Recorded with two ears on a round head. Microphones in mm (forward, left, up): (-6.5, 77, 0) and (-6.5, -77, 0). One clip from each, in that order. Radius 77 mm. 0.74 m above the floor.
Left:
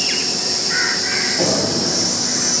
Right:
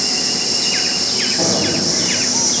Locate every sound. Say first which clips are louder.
0.0 s an insect: right 1 dB; 15° right (ahead or behind), 2.5 m
1.4 s knocking: right 1 dB; 15° left (ahead or behind), 4.5 m